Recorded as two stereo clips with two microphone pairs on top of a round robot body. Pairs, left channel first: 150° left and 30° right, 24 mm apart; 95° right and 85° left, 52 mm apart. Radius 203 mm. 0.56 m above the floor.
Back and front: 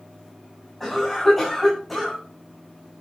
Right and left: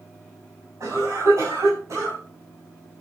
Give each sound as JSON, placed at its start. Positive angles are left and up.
{"t": 0.8, "sound": "a cough", "azimuth_deg": 65, "distance_m": 6.0}